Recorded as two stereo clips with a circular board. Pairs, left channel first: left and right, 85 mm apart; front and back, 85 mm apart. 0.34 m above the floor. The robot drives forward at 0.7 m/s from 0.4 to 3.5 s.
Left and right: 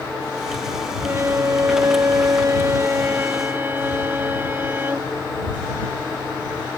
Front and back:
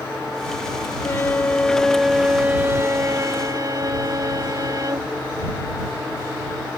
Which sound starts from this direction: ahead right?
A violin, at 1.0 s.